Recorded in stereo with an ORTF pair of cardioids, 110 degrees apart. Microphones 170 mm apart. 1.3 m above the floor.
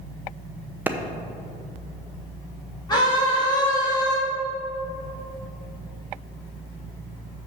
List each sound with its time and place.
0.9 s a clap: 10° right, 0.7 m
2.9 s a scream: 25° left, 3 m